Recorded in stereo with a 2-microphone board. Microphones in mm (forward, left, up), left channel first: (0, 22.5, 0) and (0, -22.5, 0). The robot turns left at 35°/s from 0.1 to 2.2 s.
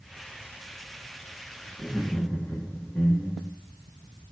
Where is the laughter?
40° left (ahead or behind), 2 m; by 3.5 s 25° left (ahead or behind), 2 m.